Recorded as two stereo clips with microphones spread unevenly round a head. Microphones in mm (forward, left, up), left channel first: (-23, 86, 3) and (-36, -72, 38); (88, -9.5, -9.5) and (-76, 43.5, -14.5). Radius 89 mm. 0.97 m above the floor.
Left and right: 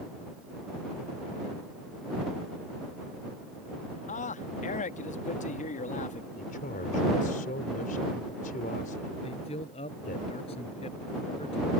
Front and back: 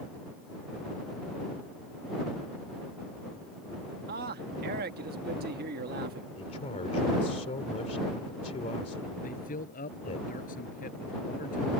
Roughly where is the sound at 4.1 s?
Behind left.